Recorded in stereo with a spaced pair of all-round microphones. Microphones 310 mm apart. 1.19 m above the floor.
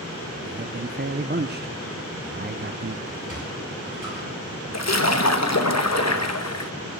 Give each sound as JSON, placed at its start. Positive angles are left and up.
{"t": 0.5, "sound": "a man speaking", "side_deg": -35, "distance_m": 0.6}
{"t": 3.1, "sound": "a sliding door", "side_deg": -80, "distance_m": 9.5}
{"t": 4.7, "sound": "a splash", "side_deg": 55, "distance_m": 1.1}